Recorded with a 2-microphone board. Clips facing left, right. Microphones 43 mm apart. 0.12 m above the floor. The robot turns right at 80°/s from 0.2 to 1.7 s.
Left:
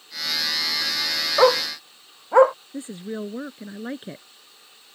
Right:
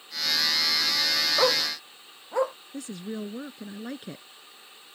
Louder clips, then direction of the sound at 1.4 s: Left 10 dB; 35° left (ahead or behind).